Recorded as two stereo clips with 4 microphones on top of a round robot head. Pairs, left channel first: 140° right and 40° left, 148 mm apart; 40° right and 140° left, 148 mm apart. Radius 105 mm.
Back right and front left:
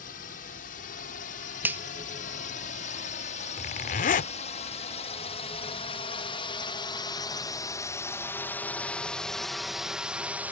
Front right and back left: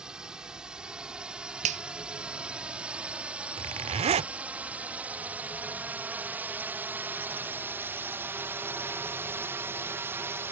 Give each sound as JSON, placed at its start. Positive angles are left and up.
{"t": 0.0, "sound": "a drone", "azimuth_deg": -135}
{"t": 1.6, "sound": "a finger snap", "azimuth_deg": 115}
{"t": 3.6, "sound": "a zipper", "azimuth_deg": -175}